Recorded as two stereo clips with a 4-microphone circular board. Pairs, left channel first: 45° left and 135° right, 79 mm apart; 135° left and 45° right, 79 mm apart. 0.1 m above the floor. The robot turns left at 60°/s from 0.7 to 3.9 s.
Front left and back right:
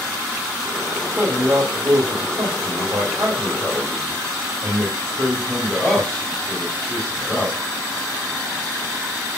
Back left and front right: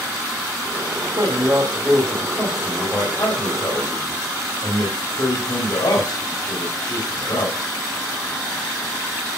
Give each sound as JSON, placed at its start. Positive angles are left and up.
{"t": 1.2, "sound": "a man speaking", "azimuth_deg": -75, "distance_m": 5.5}